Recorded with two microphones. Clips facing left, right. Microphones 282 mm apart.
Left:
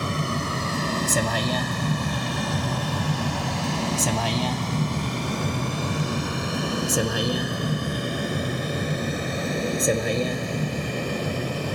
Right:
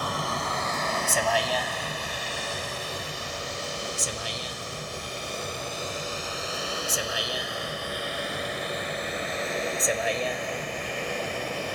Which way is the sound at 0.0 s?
30° left (ahead or behind).